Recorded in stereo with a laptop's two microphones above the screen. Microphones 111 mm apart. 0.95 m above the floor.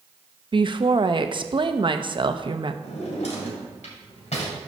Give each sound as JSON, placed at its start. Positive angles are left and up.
{"t": 0.5, "sound": "a woman speaking", "side_deg": -45, "distance_m": 0.7}
{"t": 2.8, "sound": "a drawer", "side_deg": 80, "distance_m": 2.5}